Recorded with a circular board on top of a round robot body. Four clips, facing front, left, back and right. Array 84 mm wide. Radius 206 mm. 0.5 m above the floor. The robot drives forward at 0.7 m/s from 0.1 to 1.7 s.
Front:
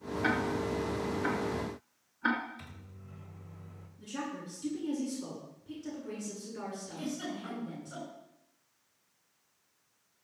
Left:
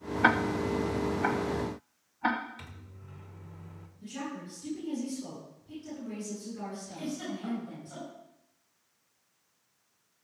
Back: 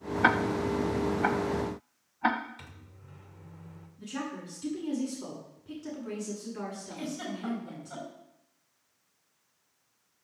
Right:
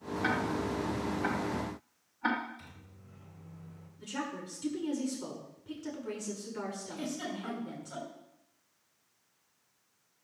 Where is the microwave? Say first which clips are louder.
Left 4 dB, front 1 dB; 130° left, 2 m.